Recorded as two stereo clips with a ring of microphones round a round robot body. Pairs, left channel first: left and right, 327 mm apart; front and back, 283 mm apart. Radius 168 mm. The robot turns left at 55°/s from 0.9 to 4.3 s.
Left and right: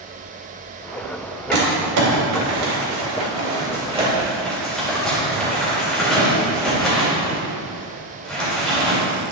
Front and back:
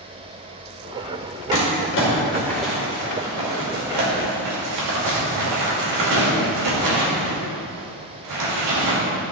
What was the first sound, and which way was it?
Crumpling, 30° right.